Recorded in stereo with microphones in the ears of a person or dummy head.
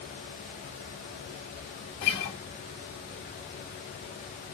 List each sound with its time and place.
2.0 s a guitar: 55° left (ahead or behind), 2 m